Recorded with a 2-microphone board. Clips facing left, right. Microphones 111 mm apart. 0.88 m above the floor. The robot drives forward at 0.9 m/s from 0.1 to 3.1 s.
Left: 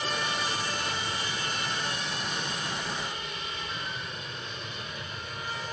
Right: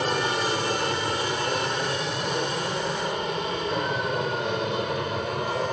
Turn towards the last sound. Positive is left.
turn(degrees=-70)  # may be behind; listen again after turning